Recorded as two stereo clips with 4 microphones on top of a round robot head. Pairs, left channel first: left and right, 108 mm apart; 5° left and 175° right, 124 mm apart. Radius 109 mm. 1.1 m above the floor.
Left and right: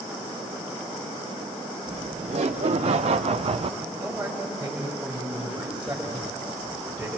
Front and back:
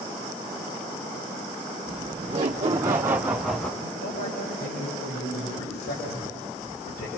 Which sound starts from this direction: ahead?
A man speaking, at 3.8 s.